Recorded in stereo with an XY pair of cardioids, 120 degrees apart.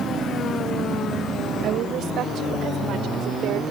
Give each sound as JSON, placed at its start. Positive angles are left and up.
{"t": 1.6, "sound": "a woman speaking", "azimuth_deg": -65}